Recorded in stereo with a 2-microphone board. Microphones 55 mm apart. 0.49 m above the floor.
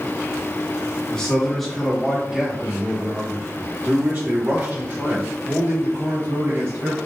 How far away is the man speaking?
About 1.6 m.